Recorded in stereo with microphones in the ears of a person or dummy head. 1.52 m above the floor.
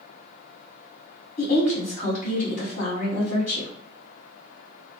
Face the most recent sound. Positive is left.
turn(degrees=50)  # may be behind; listen again after turning